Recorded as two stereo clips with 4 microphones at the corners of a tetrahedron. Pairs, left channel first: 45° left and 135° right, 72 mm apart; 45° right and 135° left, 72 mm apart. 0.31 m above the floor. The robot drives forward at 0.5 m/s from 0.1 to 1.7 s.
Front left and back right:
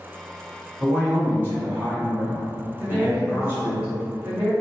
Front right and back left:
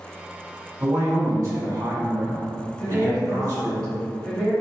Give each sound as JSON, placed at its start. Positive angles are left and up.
{"t": 0.8, "sound": "a man speaking", "azimuth_deg": 175, "distance_m": 1.4}
{"t": 2.8, "sound": "a woman speaking", "azimuth_deg": -120, "distance_m": 1.3}